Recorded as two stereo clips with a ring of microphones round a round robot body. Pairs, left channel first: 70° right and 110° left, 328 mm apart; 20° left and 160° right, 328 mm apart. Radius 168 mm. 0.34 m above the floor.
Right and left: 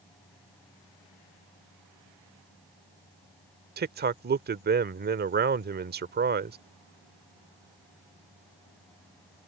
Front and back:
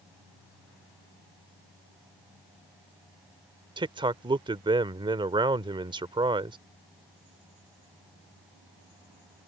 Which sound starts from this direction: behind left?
A man speaking, at 3.8 s.